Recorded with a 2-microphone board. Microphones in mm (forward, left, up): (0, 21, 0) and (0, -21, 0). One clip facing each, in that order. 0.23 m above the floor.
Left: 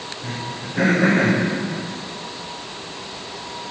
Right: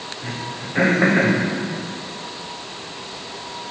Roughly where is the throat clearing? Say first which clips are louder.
Even; right.